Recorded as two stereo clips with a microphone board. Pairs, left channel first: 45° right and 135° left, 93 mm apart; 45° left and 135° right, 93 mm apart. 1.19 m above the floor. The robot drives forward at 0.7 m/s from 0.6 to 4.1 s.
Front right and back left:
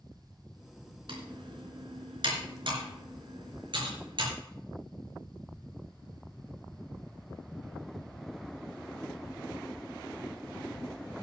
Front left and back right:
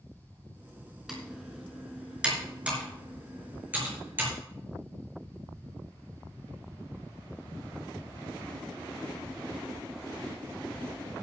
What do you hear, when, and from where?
1.1 s typing on a keyboard: 140° left, 3.5 m; by 4.3 s 155° left, 5 m